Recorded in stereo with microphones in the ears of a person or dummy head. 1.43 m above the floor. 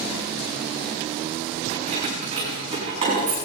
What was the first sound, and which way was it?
Keys jangling, 30° right (ahead or behind).